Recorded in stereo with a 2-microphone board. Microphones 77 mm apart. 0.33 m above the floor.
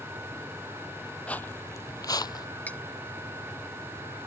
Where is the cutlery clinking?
20° left (ahead or behind).